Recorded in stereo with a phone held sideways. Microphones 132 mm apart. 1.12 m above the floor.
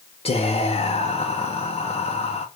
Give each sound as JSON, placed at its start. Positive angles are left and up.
{"t": 0.2, "sound": "whispering", "side_deg": 50, "distance_m": 0.6}